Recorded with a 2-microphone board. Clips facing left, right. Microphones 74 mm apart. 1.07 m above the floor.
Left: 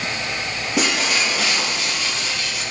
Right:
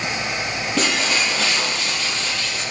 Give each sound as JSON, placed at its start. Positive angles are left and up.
{"t": 0.8, "sound": "breaking glass", "side_deg": 15, "distance_m": 7.0}